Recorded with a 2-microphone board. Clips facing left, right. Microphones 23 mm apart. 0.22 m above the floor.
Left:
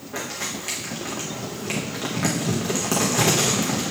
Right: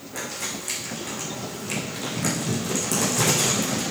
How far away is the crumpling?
About 3.5 m.